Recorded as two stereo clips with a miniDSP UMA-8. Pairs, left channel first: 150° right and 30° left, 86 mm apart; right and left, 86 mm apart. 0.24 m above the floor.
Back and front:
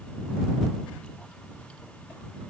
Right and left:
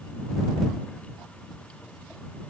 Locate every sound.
Only background noise.